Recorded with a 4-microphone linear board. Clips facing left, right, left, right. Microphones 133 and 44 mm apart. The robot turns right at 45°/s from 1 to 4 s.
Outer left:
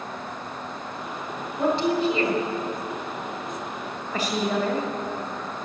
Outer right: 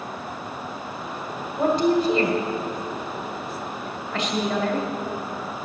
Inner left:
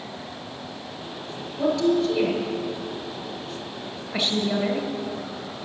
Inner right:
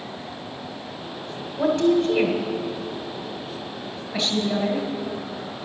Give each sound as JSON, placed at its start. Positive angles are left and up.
{"t": 1.6, "sound": "a woman speaking", "side_deg": -40, "distance_m": 1.7}